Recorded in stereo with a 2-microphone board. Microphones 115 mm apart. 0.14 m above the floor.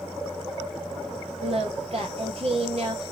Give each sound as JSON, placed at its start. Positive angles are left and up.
{"t": 1.4, "sound": "singing", "side_deg": -65, "distance_m": 3.0}